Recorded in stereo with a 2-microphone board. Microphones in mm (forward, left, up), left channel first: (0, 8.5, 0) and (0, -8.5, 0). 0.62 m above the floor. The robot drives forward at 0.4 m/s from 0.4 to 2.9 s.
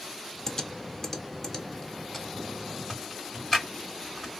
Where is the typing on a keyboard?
30° left (ahead or behind), 0.7 m; by 4.4 s 15° left (ahead or behind), 1.6 m.